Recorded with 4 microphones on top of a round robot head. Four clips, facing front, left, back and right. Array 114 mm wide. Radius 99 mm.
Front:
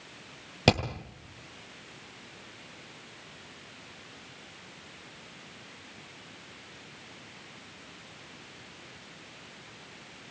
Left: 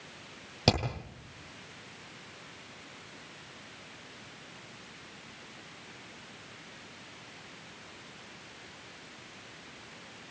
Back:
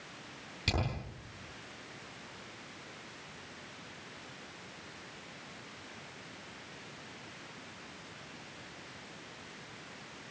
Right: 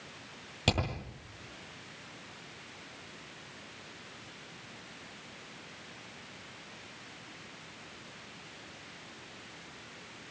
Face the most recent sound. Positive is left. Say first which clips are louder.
# left 4 dB, front 12 dB
turn(degrees=15)